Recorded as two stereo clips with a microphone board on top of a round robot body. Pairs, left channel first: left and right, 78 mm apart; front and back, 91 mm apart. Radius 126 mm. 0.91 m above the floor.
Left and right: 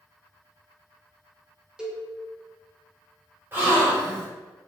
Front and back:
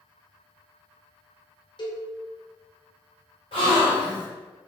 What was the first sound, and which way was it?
A cowbell, 10° right.